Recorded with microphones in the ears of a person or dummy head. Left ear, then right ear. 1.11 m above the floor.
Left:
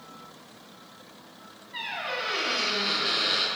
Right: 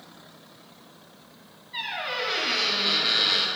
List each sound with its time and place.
1.7 s a squeak: 10° right (ahead or behind), 0.8 m